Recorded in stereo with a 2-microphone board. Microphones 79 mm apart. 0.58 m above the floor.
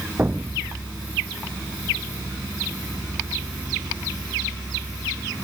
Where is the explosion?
25° right (ahead or behind).